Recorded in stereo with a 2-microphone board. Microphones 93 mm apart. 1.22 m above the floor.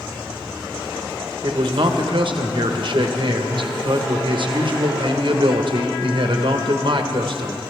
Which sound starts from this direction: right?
A man speaking, at 1.4 s.